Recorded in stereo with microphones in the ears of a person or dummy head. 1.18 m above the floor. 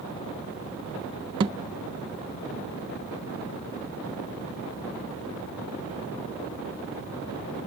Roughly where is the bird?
I don't hear a bird.